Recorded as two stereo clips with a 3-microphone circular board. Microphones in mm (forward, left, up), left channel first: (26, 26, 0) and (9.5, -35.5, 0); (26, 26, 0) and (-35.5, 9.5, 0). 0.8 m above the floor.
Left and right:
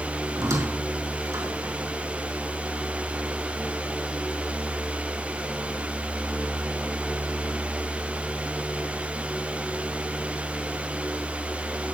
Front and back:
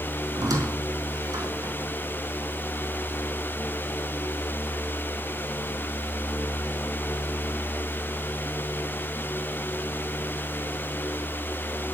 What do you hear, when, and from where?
0.3 s a squeak: 140° right, 4.5 m